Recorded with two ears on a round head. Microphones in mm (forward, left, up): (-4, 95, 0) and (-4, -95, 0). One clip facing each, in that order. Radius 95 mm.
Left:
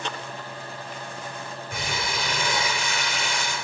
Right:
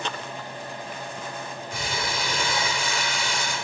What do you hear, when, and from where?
1.7 s crumpling: 50° left (ahead or behind), 3.5 m